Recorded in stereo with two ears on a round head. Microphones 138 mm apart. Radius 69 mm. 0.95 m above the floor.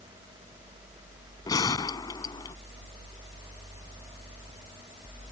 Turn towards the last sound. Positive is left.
turn(degrees=25)  # may be behind; listen again after turning